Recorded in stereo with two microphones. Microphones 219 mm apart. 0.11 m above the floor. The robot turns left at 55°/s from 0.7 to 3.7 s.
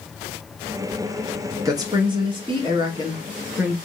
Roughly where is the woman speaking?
Centre.